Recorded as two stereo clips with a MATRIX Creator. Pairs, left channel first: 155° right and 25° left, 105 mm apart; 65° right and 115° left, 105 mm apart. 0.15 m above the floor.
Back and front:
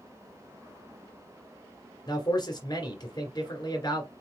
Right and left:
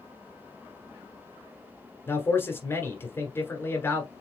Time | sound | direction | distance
2.1 | a man speaking | 130° right | 1.5 m